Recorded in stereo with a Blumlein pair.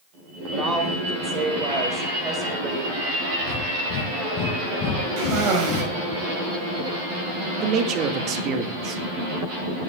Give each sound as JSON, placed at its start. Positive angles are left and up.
{"t": 0.5, "sound": "a woman speaking", "azimuth_deg": -20, "distance_m": 4.5}
{"t": 3.4, "sound": "breathing", "azimuth_deg": 35, "distance_m": 1.6}
{"t": 5.2, "sound": "a cough", "azimuth_deg": -40, "distance_m": 5.5}
{"t": 7.6, "sound": "a man speaking", "azimuth_deg": -35, "distance_m": 1.8}